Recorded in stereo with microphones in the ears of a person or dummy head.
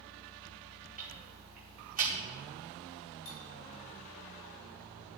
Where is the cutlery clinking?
65° left (ahead or behind), 2 m.